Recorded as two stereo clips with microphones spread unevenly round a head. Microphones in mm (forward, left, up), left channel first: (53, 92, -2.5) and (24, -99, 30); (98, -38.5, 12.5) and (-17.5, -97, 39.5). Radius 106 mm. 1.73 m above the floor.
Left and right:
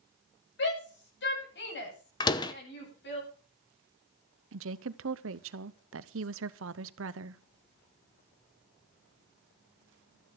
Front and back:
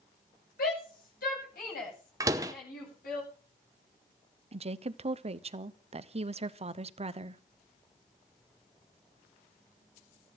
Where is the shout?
55° left, 9 m; by 3.2 s 50° left, 10.5 m.